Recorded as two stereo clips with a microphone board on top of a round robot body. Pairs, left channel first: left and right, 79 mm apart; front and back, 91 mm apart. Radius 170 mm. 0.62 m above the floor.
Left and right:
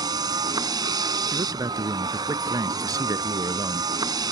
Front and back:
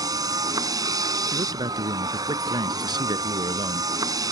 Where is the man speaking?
135° right.